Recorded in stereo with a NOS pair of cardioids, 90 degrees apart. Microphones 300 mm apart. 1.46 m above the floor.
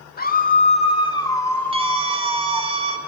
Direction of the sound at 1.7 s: 20° right.